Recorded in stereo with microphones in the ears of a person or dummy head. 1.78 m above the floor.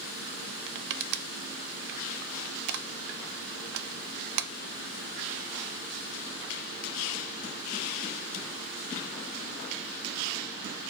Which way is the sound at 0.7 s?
60° right (ahead or behind).